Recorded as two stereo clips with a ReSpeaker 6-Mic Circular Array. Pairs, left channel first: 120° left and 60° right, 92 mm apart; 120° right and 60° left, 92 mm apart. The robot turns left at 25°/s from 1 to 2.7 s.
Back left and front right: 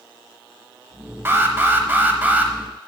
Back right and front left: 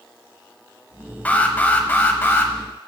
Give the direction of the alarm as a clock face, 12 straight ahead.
2 o'clock.